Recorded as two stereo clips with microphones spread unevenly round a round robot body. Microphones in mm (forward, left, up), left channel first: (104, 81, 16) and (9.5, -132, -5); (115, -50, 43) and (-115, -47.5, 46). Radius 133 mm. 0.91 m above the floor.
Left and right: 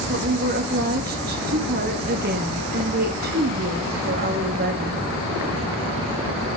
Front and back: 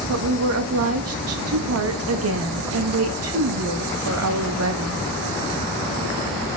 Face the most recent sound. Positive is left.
turn(degrees=-165)